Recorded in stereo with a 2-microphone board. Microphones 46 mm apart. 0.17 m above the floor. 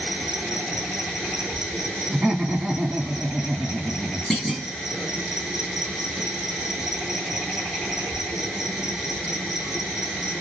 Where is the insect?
10° right (ahead or behind), 0.9 m.